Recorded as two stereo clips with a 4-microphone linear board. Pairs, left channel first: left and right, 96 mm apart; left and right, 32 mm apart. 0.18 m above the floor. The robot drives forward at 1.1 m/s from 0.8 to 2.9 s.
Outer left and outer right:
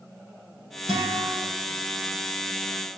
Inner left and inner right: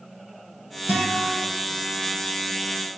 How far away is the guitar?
About 6.5 m.